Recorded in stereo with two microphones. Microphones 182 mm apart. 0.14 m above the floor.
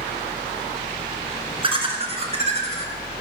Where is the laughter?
30° right (ahead or behind), 1.9 m; by 2.9 s 35° right (ahead or behind), 2.5 m.